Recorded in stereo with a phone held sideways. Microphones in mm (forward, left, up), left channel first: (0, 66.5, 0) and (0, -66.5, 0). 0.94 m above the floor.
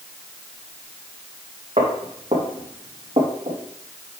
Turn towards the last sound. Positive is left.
turn(degrees=-45)  # may be behind; listen again after turning